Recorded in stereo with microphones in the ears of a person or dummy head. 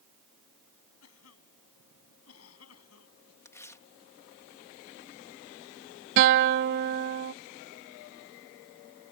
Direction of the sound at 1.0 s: 85° left.